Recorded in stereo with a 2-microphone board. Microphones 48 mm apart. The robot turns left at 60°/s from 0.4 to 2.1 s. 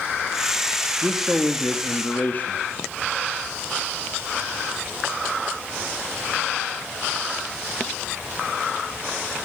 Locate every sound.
1.0 s a man speaking: 160° right, 1.7 m; by 2.6 s 130° left, 1.7 m